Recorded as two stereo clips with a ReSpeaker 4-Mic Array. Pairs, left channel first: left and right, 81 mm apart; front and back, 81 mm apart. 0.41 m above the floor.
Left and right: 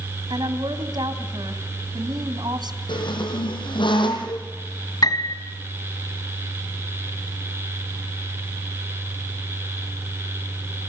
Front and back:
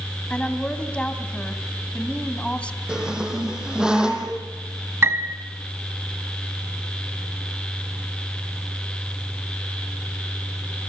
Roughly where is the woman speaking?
Right.